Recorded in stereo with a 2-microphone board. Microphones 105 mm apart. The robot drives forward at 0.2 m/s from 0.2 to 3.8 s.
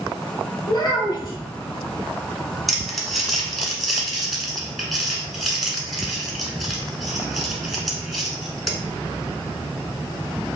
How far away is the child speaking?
About 1.6 m.